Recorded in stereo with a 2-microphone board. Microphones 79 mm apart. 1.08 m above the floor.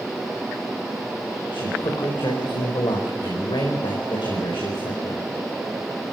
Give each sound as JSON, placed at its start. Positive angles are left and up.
{"t": 1.5, "sound": "a man speaking", "side_deg": 85, "distance_m": 5.0}